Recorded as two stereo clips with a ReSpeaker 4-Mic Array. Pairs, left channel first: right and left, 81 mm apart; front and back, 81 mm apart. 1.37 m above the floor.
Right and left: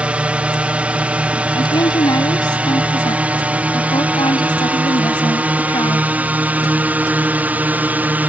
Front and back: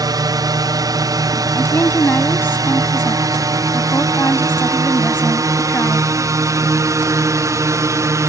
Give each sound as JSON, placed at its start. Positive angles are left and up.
{"t": 0.0, "sound": "a drone", "azimuth_deg": 160}
{"t": 1.6, "sound": "a woman speaking", "azimuth_deg": -65}